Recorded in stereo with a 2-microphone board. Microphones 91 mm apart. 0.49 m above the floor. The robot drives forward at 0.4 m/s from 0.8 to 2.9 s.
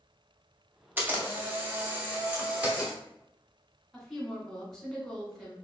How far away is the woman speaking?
About 0.9 m.